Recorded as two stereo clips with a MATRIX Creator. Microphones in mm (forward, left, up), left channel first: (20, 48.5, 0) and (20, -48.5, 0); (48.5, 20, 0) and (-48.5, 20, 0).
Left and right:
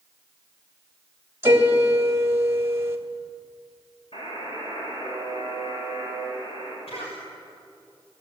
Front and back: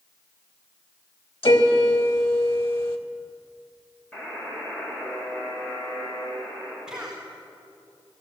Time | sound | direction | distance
1.4 | a piano | 25° right | 2.5 m
4.1 | a buzzer | 75° left | 9.5 m
6.9 | a cough | 95° left | 4 m